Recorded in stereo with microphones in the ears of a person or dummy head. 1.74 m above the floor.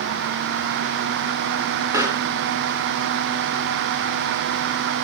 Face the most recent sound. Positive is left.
turn(degrees=-10)  # may be behind; listen again after turning